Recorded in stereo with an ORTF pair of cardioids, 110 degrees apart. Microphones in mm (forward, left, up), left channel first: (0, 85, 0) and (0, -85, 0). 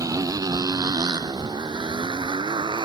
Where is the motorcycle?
20° right; by 2.9 s 25° right.